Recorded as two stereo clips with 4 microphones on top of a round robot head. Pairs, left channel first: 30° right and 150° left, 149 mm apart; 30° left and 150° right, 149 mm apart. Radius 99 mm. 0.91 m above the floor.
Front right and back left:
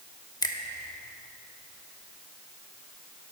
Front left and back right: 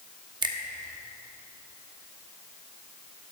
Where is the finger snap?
90° right, 1.2 m.